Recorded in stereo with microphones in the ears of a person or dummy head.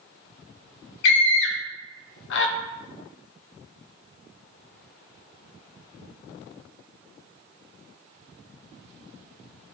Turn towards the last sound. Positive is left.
turn(degrees=70)  # may be behind; listen again after turning